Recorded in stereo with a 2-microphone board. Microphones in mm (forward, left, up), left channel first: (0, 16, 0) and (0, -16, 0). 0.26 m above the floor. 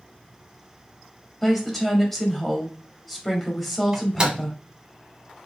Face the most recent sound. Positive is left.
turn(degrees=-30)  # may be behind; listen again after turning